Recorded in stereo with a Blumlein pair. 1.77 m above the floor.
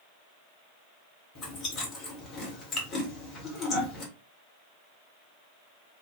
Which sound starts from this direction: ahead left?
Chewing, at 1.4 s.